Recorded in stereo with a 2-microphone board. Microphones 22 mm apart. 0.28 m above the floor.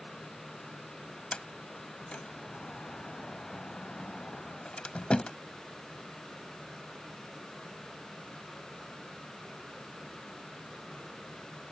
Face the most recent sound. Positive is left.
turn(degrees=55)  # may be behind; listen again after turning